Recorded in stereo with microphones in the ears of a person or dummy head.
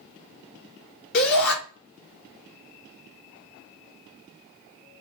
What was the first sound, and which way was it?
A shout, 55° left (ahead or behind).